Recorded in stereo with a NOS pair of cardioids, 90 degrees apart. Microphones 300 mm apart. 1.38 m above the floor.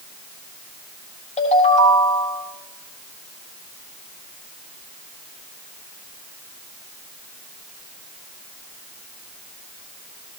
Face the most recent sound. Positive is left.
turn(degrees=25)